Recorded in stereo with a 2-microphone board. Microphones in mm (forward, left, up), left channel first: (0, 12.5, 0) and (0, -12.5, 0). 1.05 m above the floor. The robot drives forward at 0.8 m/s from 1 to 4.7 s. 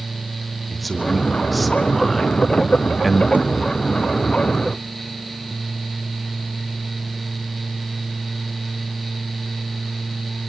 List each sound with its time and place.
0.7 s a man speaking: centre (ahead or behind), 3 m; by 3.2 s 5° right (ahead or behind), 1.5 m
3.3 s a thud: 65° right (ahead or behind), 1.6 m; by 3.5 s 60° right (ahead or behind), 1.7 m